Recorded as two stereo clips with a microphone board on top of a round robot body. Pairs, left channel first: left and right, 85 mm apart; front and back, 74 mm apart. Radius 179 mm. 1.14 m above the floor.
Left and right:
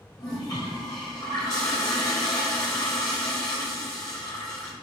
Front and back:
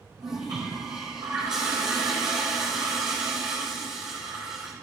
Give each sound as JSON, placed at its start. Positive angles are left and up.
{"t": 0.2, "sound": "a toilet flushing", "azimuth_deg": 140, "distance_m": 1.1}